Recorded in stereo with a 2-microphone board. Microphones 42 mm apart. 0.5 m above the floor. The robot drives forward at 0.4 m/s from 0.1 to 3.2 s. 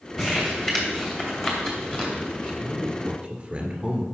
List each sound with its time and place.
0.2 s crumpling: 15° left (ahead or behind), 2.5 m; by 2.5 s 20° left (ahead or behind), 1.8 m
2.6 s a man speaking: 25° right (ahead or behind), 1.5 m; by 4.0 s 20° right (ahead or behind), 1.6 m